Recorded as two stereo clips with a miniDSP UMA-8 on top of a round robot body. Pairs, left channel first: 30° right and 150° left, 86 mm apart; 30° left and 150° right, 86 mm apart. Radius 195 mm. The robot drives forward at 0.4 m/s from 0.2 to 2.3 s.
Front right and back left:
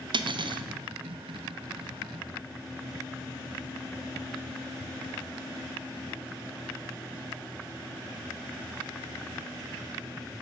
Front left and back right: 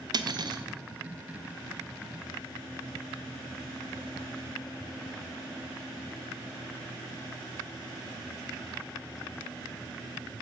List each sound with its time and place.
0.1 s cutlery clinking: 175° left, 1.1 m